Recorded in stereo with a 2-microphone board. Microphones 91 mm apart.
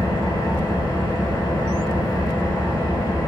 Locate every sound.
0.0 s an engine running: 45° left (ahead or behind), 0.9 m